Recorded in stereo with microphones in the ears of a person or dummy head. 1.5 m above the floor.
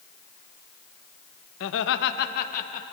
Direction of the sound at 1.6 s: 75° left (ahead or behind).